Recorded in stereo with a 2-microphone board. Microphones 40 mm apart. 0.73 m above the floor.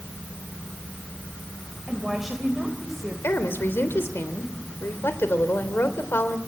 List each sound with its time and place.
1.9 s a woman speaking: 5° right (ahead or behind), 3 m
3.2 s a woman speaking: 75° left (ahead or behind), 2.5 m